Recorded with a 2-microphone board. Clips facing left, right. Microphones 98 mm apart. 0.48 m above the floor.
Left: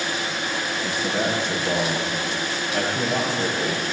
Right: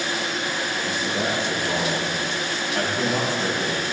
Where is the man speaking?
60° left (ahead or behind), 7.5 m; by 3.8 s 50° left (ahead or behind), 11.5 m.